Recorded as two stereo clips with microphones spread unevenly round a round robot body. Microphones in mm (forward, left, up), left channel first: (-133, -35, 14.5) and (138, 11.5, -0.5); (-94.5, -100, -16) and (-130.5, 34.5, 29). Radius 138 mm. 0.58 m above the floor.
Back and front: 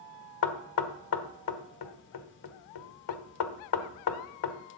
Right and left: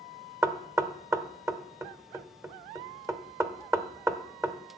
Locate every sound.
0.4 s knocking: straight behind, 1.3 m